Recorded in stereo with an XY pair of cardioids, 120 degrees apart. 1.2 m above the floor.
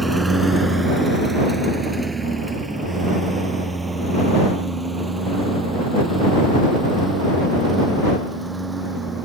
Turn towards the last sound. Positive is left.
turn(degrees=-15)